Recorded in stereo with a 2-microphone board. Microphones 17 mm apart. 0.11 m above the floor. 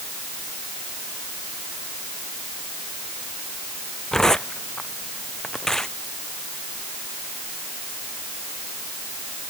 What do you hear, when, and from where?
4.1 s tearing paper: 35° left (ahead or behind)